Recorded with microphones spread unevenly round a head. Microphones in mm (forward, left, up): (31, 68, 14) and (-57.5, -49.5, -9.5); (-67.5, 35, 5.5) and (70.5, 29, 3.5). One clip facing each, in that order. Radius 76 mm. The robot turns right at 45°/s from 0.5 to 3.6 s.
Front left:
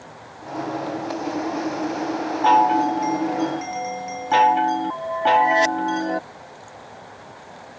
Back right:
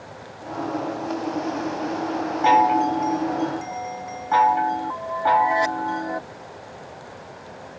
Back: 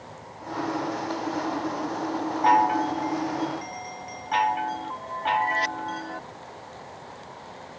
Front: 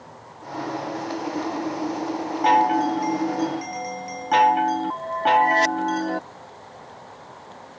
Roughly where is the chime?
Ahead right.